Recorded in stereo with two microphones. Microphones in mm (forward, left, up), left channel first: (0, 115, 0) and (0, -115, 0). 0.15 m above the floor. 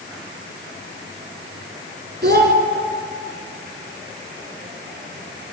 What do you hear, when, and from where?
2.2 s a child speaking: 45° right (ahead or behind), 0.9 m